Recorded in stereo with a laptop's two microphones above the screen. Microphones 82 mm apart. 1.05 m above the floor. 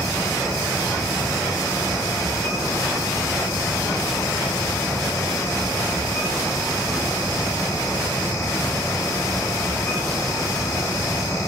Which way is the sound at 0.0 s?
40° left (ahead or behind).